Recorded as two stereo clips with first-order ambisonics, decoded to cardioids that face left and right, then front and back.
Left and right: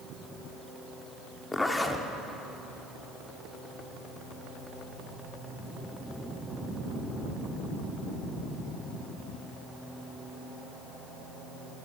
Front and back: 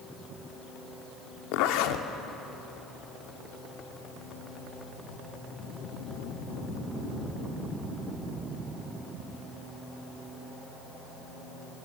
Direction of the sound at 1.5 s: 10° left.